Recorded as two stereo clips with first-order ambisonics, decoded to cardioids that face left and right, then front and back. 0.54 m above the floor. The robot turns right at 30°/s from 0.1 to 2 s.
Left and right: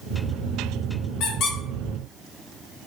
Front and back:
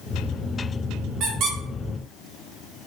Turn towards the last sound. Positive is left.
turn(degrees=160)